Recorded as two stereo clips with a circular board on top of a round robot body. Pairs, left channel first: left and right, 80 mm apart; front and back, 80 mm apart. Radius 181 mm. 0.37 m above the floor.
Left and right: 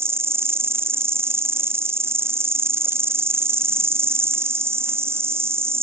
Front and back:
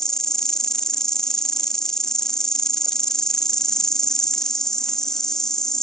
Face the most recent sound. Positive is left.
turn(degrees=-80)